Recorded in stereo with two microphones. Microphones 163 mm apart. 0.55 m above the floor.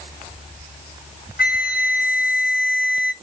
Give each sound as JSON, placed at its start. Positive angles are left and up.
{"t": 1.4, "sound": "a flute", "side_deg": 55, "distance_m": 0.8}